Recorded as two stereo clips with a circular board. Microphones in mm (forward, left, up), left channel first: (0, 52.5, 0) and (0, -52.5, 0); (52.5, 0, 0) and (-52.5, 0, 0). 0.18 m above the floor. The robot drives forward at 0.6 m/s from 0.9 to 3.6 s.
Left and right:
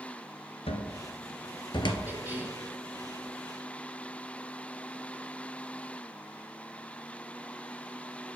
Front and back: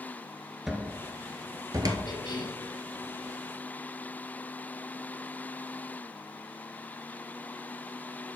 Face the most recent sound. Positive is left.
turn(degrees=-35)